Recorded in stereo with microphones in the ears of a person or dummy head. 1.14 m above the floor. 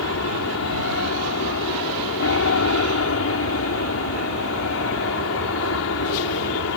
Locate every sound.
0.0 s an aircraft: 65° left (ahead or behind)